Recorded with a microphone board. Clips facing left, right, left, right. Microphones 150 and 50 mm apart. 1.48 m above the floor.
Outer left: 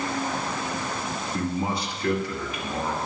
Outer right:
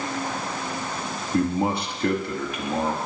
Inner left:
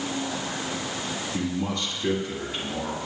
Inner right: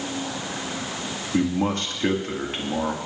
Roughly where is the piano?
No piano in this recording.